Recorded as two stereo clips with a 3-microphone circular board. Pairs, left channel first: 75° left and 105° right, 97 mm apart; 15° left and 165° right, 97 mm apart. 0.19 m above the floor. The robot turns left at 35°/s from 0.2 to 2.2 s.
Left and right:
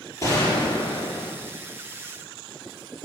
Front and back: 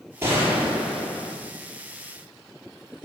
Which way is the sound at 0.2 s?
130° left.